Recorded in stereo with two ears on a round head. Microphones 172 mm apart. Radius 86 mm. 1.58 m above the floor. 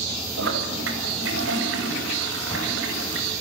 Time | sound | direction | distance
0.4 | a toilet flushing | 75° right (ahead or behind) | 6 m